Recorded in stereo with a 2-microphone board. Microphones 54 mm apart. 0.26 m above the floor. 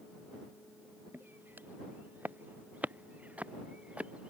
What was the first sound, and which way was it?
Footsteps, 40° right (ahead or behind).